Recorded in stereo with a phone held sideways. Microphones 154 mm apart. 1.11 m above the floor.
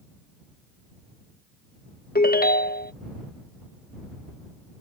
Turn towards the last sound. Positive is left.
turn(degrees=75)  # may be behind; listen again after turning